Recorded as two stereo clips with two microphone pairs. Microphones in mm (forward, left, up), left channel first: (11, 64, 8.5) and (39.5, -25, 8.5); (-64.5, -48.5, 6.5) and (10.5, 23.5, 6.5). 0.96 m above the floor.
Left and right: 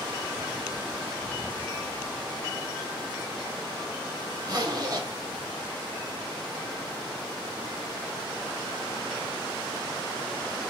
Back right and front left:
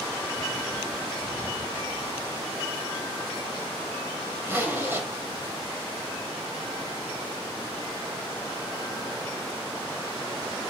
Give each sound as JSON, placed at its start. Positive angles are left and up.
{"t": 4.4, "sound": "a zipper", "azimuth_deg": -25, "distance_m": 2.5}